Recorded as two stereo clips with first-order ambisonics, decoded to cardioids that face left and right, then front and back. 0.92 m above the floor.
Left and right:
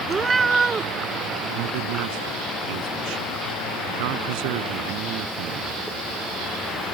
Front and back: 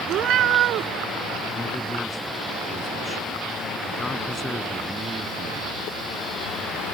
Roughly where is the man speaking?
Right.